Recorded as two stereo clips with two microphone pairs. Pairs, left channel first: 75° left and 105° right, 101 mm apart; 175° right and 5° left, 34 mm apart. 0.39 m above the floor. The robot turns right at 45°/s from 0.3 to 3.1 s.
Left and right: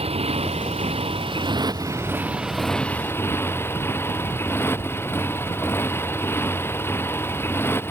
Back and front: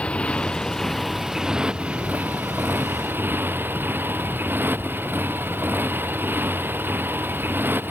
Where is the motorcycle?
120° right; by 7.9 s 5° left.